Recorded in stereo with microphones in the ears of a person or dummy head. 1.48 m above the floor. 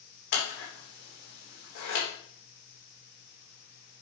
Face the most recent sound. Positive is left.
turn(degrees=60)  # may be behind; listen again after turning